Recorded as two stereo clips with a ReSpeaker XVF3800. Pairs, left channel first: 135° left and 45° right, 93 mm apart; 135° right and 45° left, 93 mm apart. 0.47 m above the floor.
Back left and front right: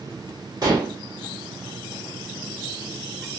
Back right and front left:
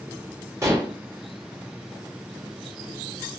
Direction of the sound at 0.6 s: 5° right.